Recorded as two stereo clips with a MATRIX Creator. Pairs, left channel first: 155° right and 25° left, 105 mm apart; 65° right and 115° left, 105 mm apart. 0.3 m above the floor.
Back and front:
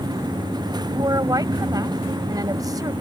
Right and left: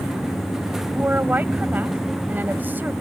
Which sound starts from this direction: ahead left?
A woman speaking, at 0.9 s.